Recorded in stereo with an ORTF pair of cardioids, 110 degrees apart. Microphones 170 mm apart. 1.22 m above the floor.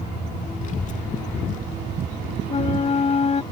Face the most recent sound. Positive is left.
turn(degrees=40)